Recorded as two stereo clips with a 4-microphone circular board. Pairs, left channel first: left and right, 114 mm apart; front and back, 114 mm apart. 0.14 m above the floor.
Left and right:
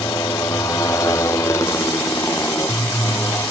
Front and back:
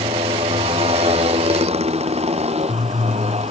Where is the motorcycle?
150° left; by 3.5 s 160° left.